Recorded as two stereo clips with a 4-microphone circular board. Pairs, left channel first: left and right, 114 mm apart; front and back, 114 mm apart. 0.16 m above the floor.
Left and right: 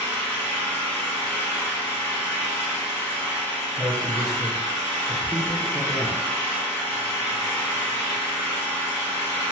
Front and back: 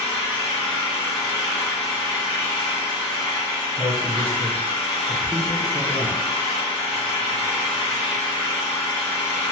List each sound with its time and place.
0.0 s an engine running: 25° left, 1.8 m
3.8 s a man speaking: 70° right, 1.4 m